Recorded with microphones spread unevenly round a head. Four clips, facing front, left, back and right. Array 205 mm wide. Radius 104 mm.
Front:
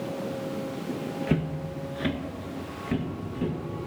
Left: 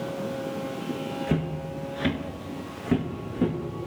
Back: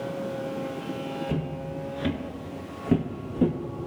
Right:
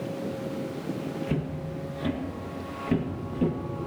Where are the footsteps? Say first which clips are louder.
Left 3 dB, front 2 dB; 35° left, 2 m; by 3.5 s 175° left, 2.5 m.